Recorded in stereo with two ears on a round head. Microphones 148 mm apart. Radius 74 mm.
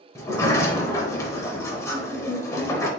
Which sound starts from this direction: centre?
A sliding door, at 0.1 s.